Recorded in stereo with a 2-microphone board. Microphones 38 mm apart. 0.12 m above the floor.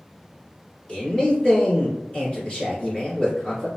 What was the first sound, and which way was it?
A man speaking, 35° left (ahead or behind).